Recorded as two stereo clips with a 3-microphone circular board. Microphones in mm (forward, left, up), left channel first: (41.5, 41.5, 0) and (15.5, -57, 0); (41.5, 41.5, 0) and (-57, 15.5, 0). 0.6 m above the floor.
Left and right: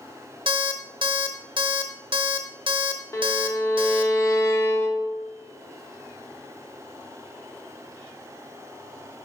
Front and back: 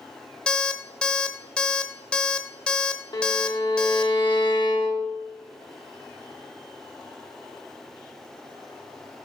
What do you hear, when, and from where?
0.5 s an alarm clock: 65° right, 0.8 m
3.1 s a violin: 25° left, 0.9 m